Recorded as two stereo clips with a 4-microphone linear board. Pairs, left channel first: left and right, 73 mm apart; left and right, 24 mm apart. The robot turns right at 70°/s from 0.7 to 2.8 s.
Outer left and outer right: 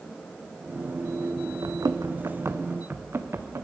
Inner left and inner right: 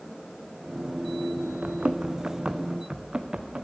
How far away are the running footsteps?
About 0.7 m.